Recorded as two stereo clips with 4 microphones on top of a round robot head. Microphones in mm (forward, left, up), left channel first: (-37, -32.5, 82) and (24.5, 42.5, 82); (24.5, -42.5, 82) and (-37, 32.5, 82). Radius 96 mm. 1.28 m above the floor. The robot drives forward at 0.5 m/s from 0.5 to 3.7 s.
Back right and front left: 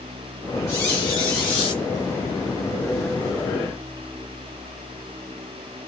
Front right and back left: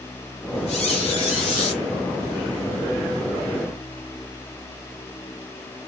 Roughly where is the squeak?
Ahead right.